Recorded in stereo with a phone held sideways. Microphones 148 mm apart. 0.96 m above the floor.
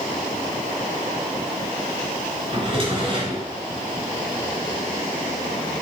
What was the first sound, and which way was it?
A drawer, 40° right (ahead or behind).